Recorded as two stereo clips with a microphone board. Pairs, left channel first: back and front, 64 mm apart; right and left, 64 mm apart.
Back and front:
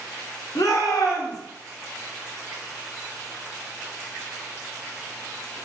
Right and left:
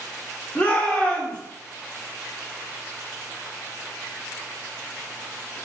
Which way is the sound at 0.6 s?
160° right.